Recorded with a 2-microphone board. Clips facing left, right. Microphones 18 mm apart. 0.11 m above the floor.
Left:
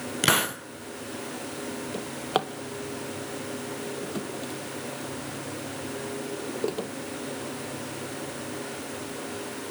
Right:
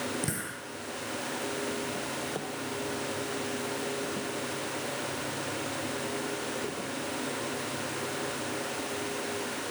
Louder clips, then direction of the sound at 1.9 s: Left 5 dB; 60° left (ahead or behind).